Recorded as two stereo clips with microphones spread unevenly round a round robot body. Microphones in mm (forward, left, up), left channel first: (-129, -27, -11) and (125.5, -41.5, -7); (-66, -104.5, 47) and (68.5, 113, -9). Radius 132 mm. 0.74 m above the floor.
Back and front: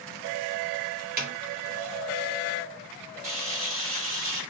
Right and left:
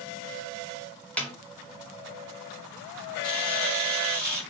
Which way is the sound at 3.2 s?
30° right.